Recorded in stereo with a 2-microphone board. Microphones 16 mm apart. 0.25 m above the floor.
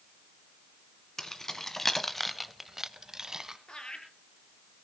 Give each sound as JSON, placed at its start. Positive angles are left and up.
{"t": 1.2, "sound": "keys jangling", "side_deg": 30, "distance_m": 1.8}
{"t": 3.7, "sound": "laughter", "side_deg": 60, "distance_m": 5.0}